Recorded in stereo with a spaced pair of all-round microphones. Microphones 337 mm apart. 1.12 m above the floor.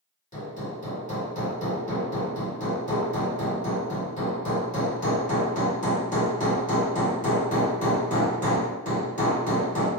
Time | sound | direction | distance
0.3 | hammering | 20° left (ahead or behind) | 2 m